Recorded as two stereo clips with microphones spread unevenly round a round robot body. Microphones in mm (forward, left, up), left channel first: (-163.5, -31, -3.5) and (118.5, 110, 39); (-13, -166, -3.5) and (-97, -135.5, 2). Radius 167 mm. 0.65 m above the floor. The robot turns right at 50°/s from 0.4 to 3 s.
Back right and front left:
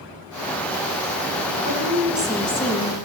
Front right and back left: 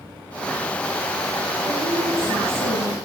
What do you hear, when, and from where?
1.6 s a woman speaking: 90° left, 8 m; by 3.0 s 155° left, 8 m